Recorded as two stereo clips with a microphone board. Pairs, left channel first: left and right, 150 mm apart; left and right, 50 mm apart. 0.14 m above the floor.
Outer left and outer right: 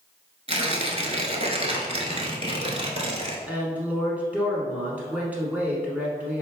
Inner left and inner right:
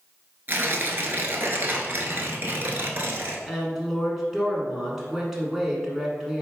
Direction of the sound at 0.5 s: 40° right (ahead or behind).